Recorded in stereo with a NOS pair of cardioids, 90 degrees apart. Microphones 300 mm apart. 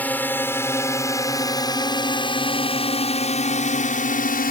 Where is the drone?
5° left; by 4.5 s 30° left.